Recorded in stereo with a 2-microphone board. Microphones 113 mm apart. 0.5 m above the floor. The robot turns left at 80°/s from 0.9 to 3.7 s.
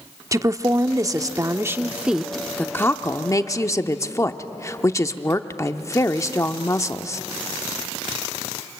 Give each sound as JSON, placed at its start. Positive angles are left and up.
{"t": 0.3, "sound": "a woman speaking", "side_deg": -30, "distance_m": 0.7}